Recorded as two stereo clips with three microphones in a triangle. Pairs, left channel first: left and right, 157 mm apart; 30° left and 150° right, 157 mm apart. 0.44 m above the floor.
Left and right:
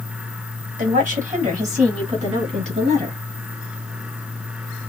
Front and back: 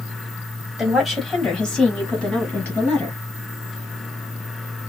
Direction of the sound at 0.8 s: 60° right.